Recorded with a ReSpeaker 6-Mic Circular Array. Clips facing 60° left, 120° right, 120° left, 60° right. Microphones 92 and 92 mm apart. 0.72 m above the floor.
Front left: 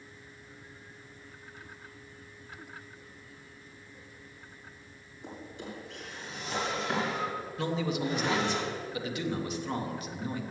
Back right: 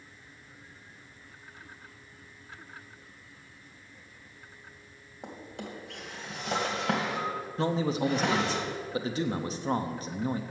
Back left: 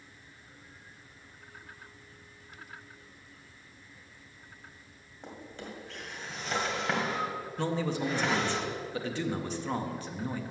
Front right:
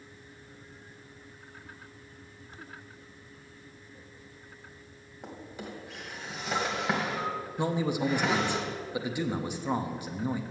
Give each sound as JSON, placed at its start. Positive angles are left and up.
{"t": 5.2, "sound": "a drawer", "azimuth_deg": -140, "distance_m": 1.9}
{"t": 7.6, "sound": "a man speaking", "azimuth_deg": -125, "distance_m": 0.7}